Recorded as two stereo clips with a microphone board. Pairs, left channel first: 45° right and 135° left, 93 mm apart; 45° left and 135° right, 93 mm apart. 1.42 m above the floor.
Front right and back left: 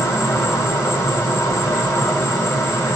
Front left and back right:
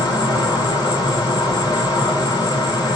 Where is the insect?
10° left, 1.9 m.